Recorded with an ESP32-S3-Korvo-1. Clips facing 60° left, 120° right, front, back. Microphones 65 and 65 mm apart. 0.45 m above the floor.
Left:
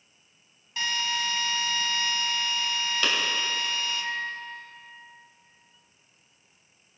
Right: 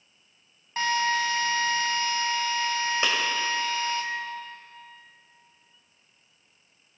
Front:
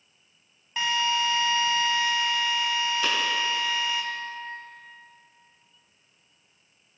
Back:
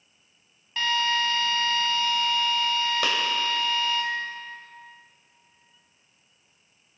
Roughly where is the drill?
Right.